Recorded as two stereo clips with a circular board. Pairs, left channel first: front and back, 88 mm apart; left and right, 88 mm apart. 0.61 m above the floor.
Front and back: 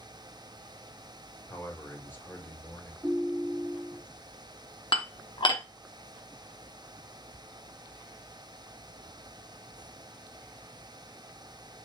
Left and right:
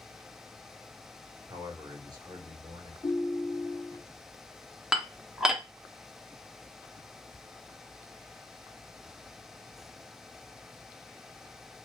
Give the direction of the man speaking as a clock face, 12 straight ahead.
2 o'clock.